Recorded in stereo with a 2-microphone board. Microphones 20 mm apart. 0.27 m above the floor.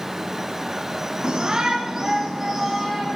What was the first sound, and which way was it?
A shout, 40° right (ahead or behind).